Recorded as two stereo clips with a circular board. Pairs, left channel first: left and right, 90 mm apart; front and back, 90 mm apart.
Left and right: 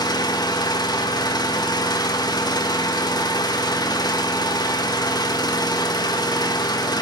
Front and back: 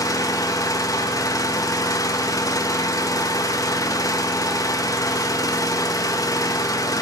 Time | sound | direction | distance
0.0 | an engine running | 50° left | 1.5 m